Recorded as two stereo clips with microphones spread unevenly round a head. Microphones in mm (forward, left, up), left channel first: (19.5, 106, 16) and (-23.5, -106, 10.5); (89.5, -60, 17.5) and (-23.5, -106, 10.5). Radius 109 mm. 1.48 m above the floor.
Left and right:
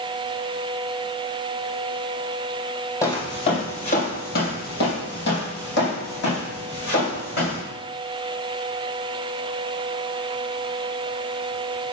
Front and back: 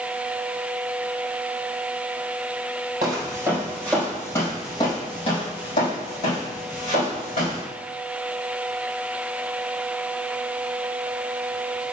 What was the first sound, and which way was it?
Footsteps, 145° left.